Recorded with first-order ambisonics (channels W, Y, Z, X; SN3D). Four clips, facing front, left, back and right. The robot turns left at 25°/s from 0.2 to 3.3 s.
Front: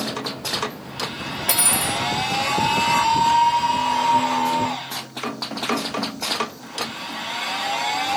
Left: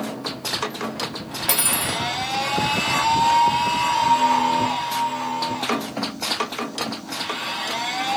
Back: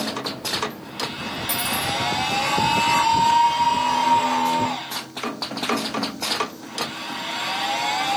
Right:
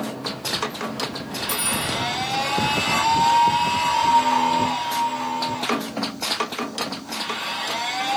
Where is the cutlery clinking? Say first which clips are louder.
Left 2 dB, front 3 dB; 50° left, 0.9 m; by 2.0 s 35° left, 0.9 m.